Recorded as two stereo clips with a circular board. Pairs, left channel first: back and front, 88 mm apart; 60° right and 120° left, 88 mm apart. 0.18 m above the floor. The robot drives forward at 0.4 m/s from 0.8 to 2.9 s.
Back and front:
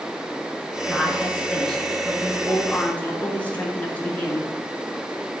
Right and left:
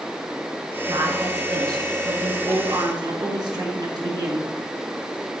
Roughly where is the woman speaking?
Left.